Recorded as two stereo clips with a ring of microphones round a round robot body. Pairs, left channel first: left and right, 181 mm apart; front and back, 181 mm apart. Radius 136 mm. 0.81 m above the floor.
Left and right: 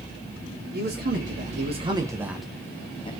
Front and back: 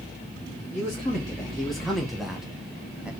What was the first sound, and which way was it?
A man speaking, 85° right.